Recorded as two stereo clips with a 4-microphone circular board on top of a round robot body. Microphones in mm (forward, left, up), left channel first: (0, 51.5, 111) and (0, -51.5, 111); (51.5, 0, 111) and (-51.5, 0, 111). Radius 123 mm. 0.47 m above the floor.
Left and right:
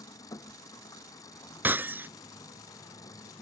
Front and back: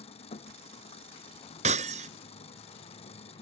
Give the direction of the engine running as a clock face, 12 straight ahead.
11 o'clock.